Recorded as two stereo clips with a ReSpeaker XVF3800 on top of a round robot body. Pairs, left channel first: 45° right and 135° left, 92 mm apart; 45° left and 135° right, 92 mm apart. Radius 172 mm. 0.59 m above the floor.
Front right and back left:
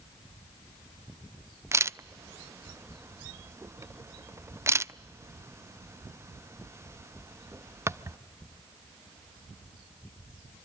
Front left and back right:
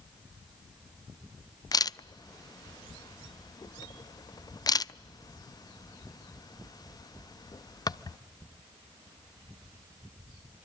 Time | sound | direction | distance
1.7 | a camera shutter | 80° left | 0.6 m